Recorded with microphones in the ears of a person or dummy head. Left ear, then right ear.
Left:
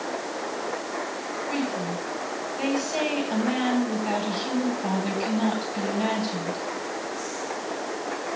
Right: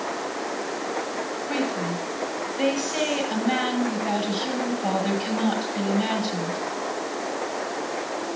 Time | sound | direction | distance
1.5 | a woman speaking | 20° left (ahead or behind) | 9 m